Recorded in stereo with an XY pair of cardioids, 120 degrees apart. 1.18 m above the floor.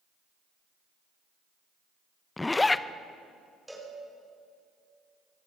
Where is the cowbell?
5° right, 4.5 m.